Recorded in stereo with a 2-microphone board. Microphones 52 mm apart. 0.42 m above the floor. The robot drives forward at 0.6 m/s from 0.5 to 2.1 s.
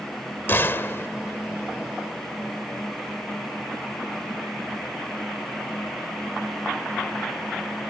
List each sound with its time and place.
0.5 s a gunshot: 45° left (ahead or behind); by 1.1 s 50° left (ahead or behind)